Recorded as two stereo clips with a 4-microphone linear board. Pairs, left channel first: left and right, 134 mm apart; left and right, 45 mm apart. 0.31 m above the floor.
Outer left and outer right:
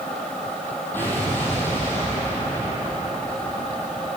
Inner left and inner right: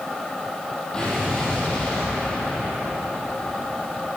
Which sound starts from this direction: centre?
An explosion, at 0.9 s.